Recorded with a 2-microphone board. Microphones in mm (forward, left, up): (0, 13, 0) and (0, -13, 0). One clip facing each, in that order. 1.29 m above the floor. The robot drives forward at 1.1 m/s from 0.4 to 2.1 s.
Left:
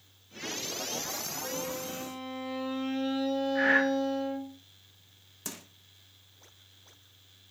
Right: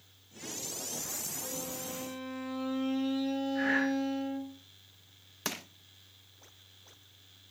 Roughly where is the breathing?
Left.